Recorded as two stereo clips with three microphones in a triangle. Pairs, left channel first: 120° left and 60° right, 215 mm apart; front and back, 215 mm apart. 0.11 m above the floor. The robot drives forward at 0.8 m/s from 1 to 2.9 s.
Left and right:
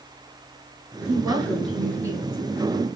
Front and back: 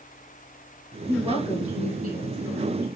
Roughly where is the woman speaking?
Behind right.